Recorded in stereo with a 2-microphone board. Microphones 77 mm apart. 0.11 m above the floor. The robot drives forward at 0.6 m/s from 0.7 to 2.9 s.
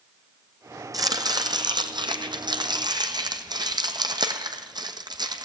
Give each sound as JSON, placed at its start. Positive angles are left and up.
{"t": 0.9, "sound": "chopping", "side_deg": -50, "distance_m": 1.3}